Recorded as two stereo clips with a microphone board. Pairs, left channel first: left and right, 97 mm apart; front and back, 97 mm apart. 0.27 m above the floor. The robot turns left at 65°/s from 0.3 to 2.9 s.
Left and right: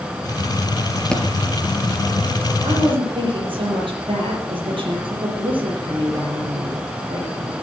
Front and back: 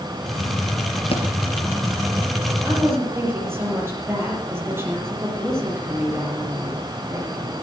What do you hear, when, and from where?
1.1 s a thud: 10° left, 3 m; by 1.3 s straight ahead, 3 m
2.6 s a woman speaking: 100° right, 7.5 m; by 7.5 s 115° right, 7.5 m